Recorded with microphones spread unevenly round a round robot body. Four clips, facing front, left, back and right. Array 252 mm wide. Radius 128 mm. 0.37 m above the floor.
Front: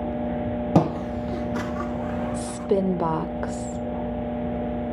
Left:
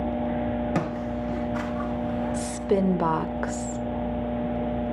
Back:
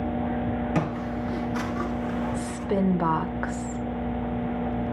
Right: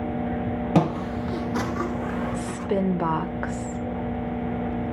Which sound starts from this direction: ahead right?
Footsteps, at 0.8 s.